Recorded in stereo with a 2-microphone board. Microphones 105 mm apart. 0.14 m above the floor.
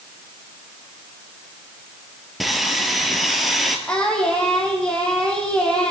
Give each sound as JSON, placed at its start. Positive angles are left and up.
{"t": 2.4, "sound": "sawing", "side_deg": 0, "distance_m": 1.6}
{"t": 3.9, "sound": "singing", "side_deg": 10, "distance_m": 3.0}